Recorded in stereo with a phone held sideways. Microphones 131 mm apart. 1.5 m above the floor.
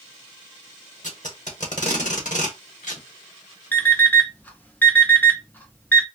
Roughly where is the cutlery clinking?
No cutlery clinking in this recording.